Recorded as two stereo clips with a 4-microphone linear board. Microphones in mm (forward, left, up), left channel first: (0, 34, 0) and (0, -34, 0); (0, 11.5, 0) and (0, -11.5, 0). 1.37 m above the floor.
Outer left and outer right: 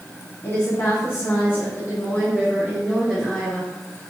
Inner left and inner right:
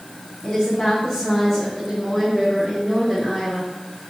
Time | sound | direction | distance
0.4 | a woman speaking | 50° left (ahead or behind) | 2 m